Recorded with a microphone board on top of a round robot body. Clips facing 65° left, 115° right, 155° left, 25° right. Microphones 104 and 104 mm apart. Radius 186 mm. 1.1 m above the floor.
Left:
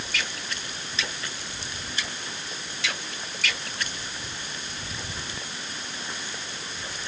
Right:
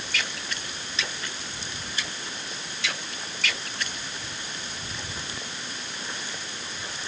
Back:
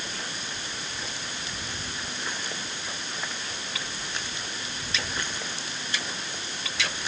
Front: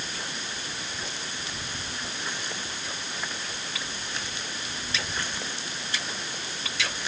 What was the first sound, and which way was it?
Only background noise.